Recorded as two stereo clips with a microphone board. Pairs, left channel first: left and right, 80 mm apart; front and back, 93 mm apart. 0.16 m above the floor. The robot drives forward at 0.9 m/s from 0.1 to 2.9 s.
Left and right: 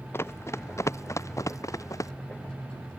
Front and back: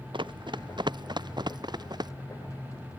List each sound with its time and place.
0.1 s running footsteps: 150° left; by 2.1 s 140° left